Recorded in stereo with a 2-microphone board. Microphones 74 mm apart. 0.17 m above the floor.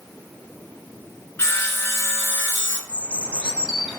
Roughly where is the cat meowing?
I don't hear a cat meowing.